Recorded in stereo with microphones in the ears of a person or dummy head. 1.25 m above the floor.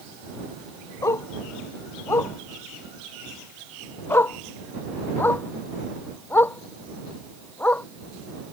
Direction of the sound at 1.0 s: 25° left (ahead or behind).